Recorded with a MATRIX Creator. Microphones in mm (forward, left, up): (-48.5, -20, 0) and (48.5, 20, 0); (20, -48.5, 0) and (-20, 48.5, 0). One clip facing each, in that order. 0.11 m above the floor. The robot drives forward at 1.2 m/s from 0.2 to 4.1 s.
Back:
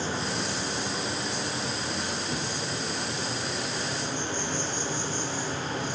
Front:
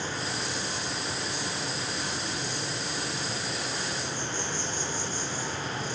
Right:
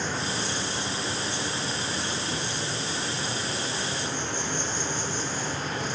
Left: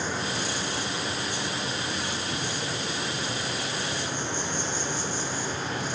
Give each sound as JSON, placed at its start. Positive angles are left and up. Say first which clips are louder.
{"t": 0.0, "sound": "an insect", "louder": "back 3 dB, even", "azimuth_deg": -165, "distance_m": 5.0}